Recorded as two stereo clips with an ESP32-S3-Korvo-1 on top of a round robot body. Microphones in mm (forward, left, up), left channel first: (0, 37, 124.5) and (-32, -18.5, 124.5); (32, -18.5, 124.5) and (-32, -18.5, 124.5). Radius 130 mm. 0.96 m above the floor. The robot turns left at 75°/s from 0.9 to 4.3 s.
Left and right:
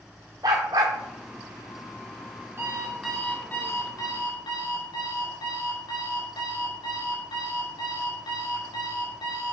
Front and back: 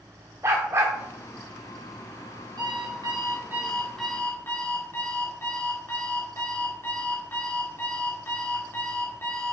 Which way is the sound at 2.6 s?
170° right.